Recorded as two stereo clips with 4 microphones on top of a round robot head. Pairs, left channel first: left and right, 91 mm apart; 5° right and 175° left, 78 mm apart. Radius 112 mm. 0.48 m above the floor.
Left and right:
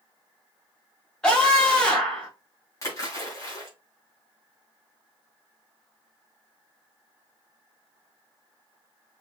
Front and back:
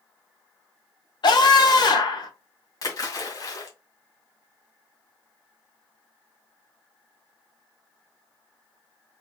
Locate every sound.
1.2 s a scream: 10° left, 3 m
2.8 s a splash: 35° left, 2 m